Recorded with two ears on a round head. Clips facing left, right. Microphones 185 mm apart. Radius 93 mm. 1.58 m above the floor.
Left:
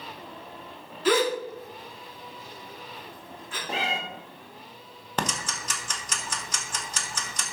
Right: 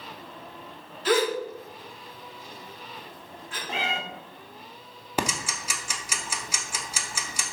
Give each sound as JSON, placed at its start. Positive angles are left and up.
{"t": 1.1, "sound": "a gasp", "side_deg": 75, "distance_m": 2.5}
{"t": 3.7, "sound": "a cat meowing", "side_deg": 30, "distance_m": 1.1}
{"t": 5.2, "sound": "ticking", "side_deg": -10, "distance_m": 0.8}